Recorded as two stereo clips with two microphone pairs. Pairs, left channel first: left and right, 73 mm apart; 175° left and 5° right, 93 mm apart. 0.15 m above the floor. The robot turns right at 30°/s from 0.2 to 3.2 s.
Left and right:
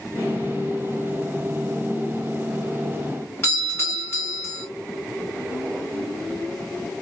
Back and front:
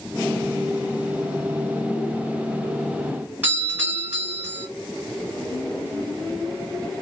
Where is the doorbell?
60° left, 1.9 m.